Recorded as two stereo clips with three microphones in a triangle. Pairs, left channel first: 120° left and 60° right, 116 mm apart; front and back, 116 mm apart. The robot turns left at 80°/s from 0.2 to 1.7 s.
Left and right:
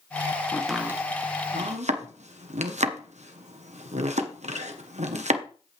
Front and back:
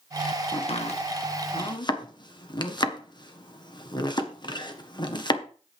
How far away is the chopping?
About 1.3 m.